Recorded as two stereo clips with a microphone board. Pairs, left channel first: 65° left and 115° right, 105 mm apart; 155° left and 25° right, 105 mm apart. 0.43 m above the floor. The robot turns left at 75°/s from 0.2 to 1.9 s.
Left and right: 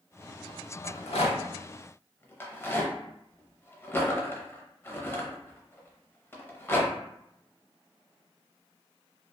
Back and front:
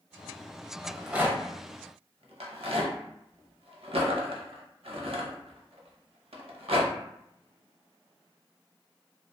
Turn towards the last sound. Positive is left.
turn(degrees=0)